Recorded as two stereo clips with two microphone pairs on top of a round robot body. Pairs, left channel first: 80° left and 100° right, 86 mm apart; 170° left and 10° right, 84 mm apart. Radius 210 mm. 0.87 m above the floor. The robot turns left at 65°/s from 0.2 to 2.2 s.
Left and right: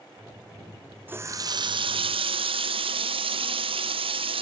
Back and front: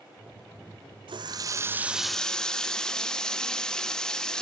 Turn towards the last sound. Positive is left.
turn(degrees=-110)